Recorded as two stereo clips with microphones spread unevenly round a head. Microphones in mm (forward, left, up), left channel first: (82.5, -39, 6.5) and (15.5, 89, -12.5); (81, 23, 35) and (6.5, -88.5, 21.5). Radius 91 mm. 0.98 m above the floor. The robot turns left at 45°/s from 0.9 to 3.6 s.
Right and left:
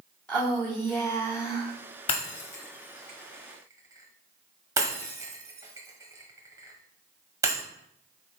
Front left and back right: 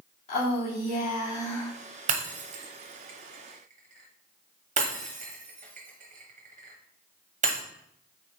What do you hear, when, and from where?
0.3 s a woman speaking: 15° left, 3 m; by 1.7 s 20° right, 3 m
2.1 s breaking glass: 100° right, 1.1 m; by 7.6 s 170° right, 1.1 m